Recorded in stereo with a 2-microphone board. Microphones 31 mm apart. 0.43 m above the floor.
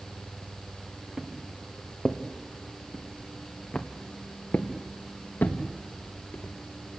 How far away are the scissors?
No scissors in this recording.